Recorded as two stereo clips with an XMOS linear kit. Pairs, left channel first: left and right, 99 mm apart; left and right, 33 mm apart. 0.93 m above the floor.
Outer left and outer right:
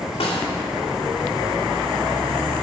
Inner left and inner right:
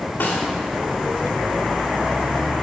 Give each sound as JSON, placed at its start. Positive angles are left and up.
{"t": 0.2, "sound": "a snare drum", "side_deg": 75, "distance_m": 2.5}